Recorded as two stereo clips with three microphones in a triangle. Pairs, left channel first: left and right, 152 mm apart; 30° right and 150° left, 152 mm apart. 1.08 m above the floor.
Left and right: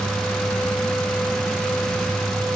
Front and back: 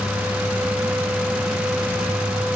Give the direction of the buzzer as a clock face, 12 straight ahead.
No buzzer in this recording.